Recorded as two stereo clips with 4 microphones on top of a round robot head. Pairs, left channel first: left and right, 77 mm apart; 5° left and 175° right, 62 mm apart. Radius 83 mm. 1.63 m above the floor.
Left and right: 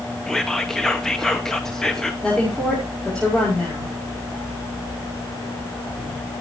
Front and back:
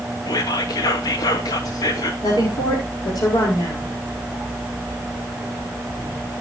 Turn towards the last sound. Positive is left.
turn(degrees=10)